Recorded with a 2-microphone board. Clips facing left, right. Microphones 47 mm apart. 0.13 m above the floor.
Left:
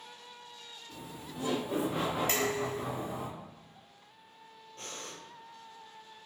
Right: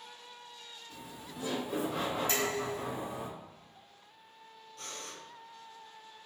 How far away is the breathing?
About 1.0 m.